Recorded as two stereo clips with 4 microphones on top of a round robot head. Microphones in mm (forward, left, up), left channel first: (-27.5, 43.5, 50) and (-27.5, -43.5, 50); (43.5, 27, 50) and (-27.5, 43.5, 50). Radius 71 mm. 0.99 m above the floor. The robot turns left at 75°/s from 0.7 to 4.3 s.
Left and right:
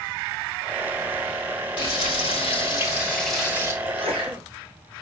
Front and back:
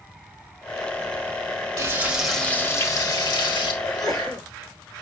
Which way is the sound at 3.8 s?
85° right.